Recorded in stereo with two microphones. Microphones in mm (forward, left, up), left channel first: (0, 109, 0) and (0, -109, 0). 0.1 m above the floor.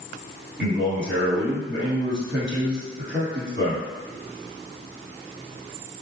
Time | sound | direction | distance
0.6 | a man speaking | 50° right (ahead or behind) | 1.9 m